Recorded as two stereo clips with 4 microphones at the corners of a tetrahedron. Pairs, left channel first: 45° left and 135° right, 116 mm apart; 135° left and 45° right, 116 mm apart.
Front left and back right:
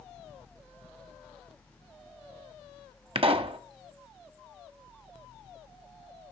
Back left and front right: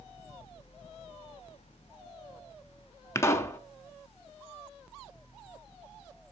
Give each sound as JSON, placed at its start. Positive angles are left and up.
{"t": 3.1, "sound": "a pop", "azimuth_deg": -165, "distance_m": 0.7}